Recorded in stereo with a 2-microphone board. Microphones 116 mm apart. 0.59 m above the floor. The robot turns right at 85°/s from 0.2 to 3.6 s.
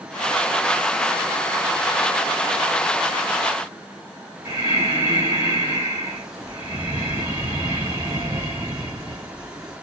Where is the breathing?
40° right (ahead or behind), 1.3 m.